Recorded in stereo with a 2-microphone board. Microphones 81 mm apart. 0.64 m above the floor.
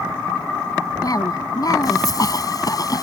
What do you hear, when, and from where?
1.0 s a cough: 50° left (ahead or behind)